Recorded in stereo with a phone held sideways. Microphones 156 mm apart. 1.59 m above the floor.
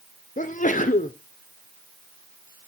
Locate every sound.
0.4 s a sneeze: 55° left (ahead or behind), 0.8 m